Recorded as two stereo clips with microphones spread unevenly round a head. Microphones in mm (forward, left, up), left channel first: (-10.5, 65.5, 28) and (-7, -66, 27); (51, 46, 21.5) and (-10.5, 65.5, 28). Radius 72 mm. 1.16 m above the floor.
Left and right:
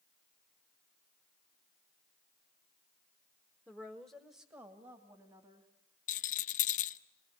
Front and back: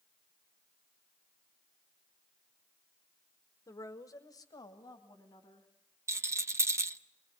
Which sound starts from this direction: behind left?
A rattle, at 6.1 s.